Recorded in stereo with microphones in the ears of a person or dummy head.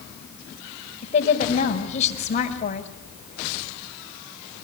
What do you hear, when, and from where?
1.0 s a woman speaking: 45° left (ahead or behind), 5.5 m